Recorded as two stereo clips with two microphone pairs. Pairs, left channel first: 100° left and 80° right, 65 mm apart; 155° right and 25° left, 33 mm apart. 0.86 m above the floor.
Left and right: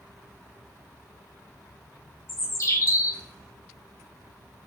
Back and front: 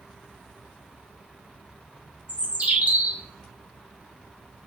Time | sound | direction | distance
2.3 | a bird | 60° left | 0.7 m